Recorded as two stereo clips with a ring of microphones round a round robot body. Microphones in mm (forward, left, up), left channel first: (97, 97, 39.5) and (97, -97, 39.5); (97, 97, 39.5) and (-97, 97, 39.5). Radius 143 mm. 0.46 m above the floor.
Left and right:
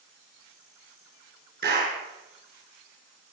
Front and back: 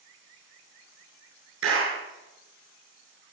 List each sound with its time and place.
1.6 s a clap: 145° right, 7.5 m